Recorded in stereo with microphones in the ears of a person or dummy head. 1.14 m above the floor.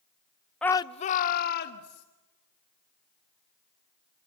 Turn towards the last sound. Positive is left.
turn(degrees=55)  # may be behind; listen again after turning